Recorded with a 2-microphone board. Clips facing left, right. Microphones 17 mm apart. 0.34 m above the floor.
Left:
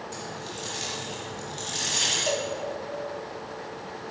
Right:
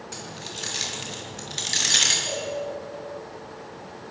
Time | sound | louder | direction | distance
0.1 | keys jangling | even | 30° right (ahead or behind) | 4.5 m
2.3 | a cowbell | left 2 dB | 65° left (ahead or behind) | 3 m